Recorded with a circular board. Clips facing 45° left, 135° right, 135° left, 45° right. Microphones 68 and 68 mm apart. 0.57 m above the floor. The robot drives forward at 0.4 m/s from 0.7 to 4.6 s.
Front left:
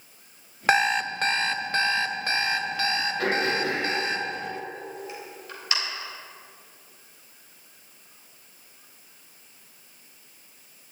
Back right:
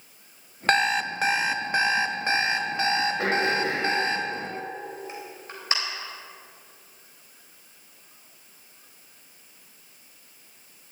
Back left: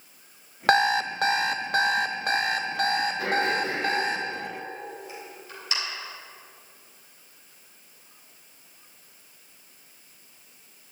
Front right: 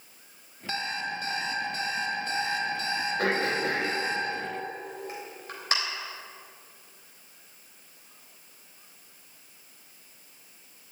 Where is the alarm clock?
130° left, 0.6 m; by 4.2 s 165° left, 1.8 m.